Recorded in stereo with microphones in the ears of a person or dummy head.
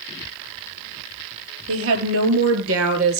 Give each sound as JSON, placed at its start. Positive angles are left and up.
{"t": 1.7, "sound": "a woman speaking", "side_deg": -75, "distance_m": 4.0}